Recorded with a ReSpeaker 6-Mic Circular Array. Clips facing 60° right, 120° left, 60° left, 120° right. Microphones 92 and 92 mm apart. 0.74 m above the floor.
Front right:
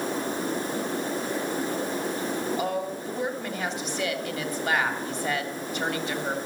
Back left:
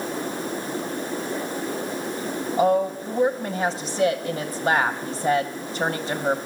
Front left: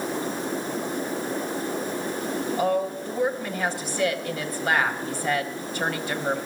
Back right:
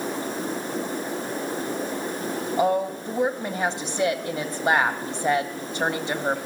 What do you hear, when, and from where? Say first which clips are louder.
2.6 s a woman speaking: back left 8 dB, back right 3 dB; 175° left, 0.9 m